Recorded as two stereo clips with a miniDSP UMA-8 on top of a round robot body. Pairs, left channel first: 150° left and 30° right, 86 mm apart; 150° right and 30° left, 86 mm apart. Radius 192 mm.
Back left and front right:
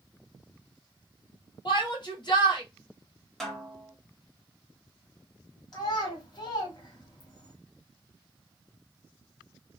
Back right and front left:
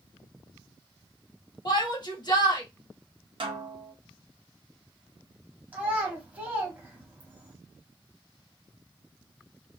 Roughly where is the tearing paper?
I don't hear tearing paper.